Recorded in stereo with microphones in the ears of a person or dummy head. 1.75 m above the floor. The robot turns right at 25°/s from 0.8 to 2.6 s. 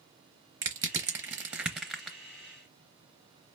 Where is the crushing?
20° right (ahead or behind), 0.8 m; by 2.2 s 5° right (ahead or behind), 0.8 m.